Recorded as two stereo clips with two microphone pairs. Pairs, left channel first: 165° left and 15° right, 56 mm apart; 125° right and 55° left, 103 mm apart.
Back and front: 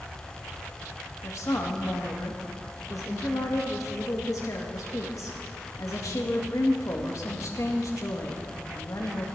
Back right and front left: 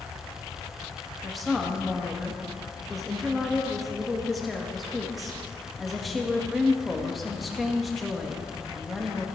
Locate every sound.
1.2 s a woman speaking: 145° left, 1.6 m